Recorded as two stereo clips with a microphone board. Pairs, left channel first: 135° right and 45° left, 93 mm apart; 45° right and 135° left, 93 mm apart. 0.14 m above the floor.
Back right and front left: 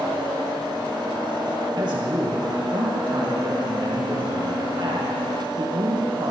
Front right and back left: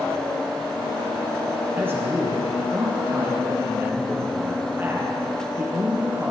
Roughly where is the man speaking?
Left.